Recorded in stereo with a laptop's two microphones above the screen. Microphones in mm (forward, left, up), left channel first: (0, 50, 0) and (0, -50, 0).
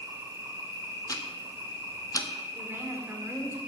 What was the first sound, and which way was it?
An insect, 25° right (ahead or behind).